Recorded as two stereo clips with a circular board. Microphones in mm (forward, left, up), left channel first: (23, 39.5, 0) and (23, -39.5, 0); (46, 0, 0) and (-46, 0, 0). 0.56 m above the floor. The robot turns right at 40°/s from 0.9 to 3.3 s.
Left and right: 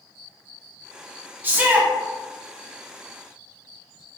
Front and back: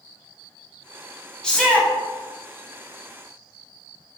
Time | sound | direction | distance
1.4 | a shout | 70° right | 0.7 m